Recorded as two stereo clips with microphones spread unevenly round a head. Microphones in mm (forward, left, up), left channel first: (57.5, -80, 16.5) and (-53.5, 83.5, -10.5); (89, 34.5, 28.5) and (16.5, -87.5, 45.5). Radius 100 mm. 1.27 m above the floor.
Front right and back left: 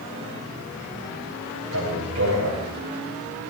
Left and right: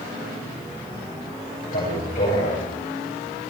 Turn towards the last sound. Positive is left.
turn(degrees=110)